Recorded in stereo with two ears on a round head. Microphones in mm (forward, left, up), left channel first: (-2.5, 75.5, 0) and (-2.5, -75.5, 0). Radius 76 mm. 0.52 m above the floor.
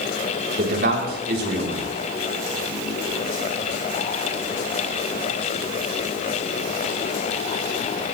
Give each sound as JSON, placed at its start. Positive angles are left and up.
{"t": 0.6, "sound": "a man speaking", "side_deg": -65, "distance_m": 5.0}